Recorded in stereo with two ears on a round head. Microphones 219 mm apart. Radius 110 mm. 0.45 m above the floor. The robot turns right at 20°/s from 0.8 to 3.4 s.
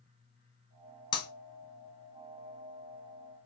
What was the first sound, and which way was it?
Breaking glass, 20° left (ahead or behind).